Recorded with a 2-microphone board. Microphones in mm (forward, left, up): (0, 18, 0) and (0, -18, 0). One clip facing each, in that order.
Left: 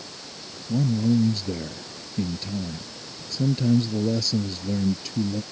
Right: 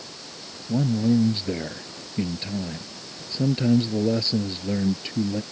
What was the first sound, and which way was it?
A man speaking, 35° right (ahead or behind).